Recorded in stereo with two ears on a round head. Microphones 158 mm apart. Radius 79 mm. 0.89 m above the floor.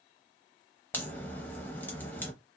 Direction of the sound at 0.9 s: 10° left (ahead or behind).